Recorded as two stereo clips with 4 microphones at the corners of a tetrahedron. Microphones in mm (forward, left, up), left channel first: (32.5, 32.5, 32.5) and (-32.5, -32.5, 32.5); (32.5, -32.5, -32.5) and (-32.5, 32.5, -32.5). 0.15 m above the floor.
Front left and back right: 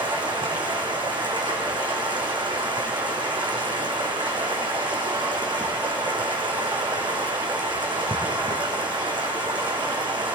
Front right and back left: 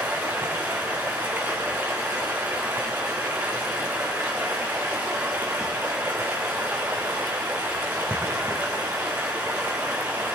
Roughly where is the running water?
Behind.